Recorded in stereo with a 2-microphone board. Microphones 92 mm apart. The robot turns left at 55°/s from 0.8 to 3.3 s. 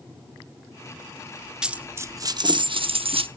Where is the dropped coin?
10° right, 0.6 m; by 3.3 s 100° right, 0.6 m.